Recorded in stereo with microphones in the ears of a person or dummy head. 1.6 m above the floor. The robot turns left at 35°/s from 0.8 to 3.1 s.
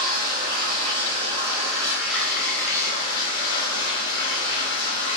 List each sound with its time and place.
0.0 s running water: 125° right, 0.8 m; by 5.2 s 155° left, 0.8 m